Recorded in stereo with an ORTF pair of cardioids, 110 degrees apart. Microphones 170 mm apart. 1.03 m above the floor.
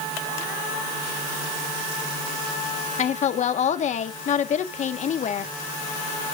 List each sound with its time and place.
3.0 s a woman speaking: 45° left, 1.8 m